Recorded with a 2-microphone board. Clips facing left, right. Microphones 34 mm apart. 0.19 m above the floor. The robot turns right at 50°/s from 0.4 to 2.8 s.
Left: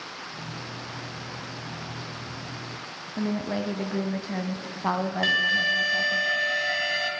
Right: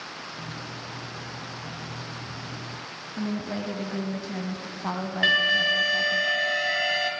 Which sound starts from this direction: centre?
An alarm, at 5.2 s.